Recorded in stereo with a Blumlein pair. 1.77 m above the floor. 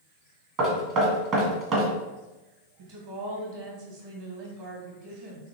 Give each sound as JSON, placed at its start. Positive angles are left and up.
{"t": 0.6, "sound": "knocking", "azimuth_deg": -35, "distance_m": 1.3}
{"t": 2.8, "sound": "a woman speaking", "azimuth_deg": -50, "distance_m": 1.6}